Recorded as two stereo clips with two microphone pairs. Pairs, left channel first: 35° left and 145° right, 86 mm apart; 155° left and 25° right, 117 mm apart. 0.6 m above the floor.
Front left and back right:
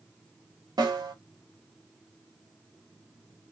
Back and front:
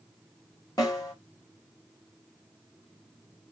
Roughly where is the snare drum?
Behind right.